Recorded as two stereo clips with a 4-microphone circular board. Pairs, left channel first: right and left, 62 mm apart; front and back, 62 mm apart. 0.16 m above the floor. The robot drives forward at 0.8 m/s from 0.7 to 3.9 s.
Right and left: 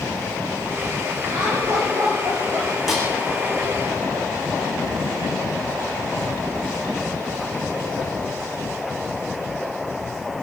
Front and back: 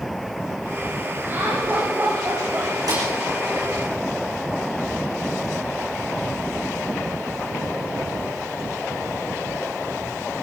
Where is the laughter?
120° left, 6.5 m; by 2.7 s 130° left, 7 m.